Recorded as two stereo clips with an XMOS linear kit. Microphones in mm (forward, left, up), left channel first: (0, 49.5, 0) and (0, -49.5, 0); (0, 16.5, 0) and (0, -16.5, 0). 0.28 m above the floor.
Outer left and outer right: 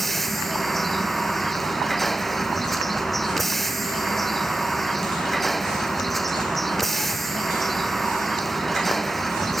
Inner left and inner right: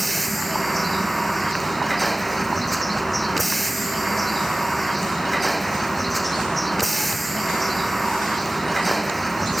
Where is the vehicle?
Centre (ahead or behind).